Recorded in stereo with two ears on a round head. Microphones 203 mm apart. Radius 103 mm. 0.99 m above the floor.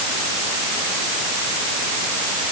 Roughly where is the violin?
I don't hear a violin.